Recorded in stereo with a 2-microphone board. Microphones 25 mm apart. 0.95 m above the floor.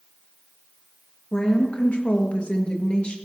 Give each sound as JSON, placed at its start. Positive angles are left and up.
{"t": 1.3, "sound": "a woman speaking", "side_deg": 40, "distance_m": 1.4}